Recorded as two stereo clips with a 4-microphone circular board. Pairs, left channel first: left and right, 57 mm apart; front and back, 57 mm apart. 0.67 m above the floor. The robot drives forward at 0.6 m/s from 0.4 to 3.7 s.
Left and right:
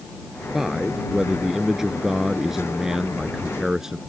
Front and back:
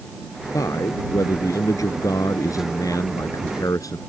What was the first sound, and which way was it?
A man speaking, 5° right.